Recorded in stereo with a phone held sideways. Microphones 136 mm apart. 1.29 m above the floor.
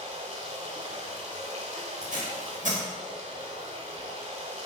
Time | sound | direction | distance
0.0 | running water | 55° right (ahead or behind) | 1.6 m
2.0 | tape being pulled | 75° right (ahead or behind) | 1.6 m